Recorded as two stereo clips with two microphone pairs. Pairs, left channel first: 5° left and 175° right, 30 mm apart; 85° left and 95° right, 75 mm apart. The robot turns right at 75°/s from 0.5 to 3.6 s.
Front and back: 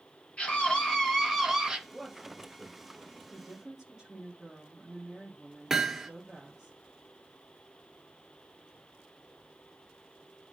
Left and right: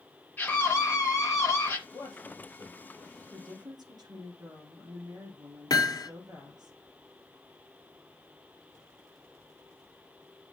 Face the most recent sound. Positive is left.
turn(degrees=105)